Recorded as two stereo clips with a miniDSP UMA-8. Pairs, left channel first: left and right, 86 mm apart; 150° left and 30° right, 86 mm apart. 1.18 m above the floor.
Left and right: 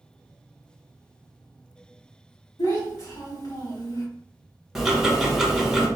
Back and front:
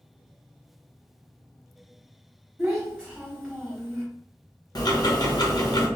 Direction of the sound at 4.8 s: 175° right.